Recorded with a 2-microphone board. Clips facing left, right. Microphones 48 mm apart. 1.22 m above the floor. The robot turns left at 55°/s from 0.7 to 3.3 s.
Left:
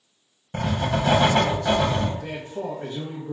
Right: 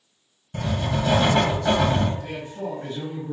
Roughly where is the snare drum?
I don't hear a snare drum.